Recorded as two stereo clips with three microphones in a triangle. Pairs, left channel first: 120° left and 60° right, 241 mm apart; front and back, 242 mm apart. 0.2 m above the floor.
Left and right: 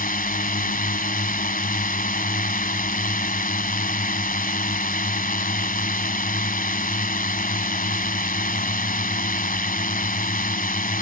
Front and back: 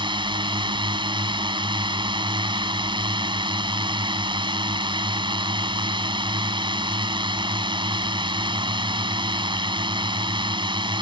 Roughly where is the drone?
Behind left.